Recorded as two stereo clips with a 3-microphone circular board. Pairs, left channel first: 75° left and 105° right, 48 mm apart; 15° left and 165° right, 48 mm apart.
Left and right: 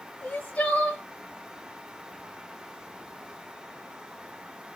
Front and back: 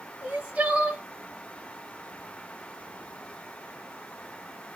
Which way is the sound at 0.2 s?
135° left.